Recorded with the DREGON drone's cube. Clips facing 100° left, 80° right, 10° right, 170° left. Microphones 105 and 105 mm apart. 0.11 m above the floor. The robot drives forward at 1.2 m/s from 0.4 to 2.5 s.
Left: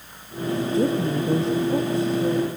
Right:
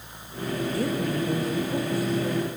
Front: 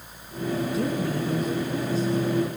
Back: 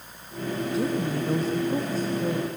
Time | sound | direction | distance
0.7 | a woman speaking | 75° left | 1.3 m